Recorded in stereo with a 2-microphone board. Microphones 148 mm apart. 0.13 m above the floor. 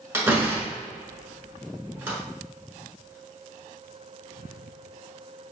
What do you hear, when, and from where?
0.1 s a door slam: 15° right (ahead or behind), 1.2 m